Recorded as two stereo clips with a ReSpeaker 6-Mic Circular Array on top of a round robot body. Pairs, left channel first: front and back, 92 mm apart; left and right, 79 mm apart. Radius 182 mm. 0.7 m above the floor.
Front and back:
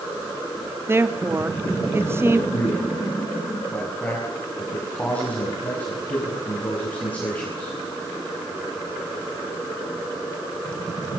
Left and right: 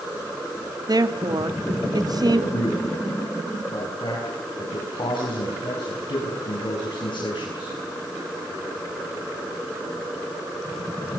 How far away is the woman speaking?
About 2 m.